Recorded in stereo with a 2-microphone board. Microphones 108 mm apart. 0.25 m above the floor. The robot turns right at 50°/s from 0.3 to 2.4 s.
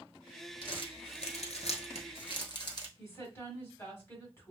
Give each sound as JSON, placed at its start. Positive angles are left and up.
{"t": 0.6, "sound": "crumpling", "side_deg": 45, "distance_m": 0.9}
{"t": 3.0, "sound": "a woman speaking", "side_deg": 25, "distance_m": 1.8}